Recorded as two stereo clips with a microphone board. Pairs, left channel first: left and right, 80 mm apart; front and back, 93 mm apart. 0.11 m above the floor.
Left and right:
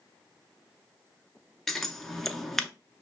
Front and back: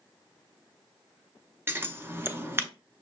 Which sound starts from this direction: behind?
Scissors, at 1.7 s.